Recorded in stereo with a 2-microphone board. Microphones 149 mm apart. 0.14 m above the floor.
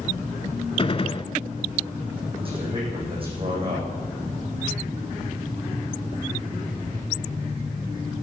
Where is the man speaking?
35° right (ahead or behind), 8.5 m.